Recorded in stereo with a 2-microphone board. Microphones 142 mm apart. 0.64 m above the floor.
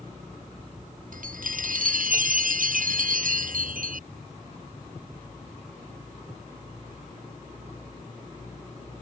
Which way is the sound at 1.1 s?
70° right (ahead or behind).